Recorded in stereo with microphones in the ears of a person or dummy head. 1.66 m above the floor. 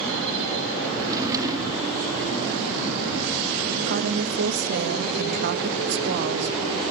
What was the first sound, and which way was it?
A drawer, 20° right (ahead or behind).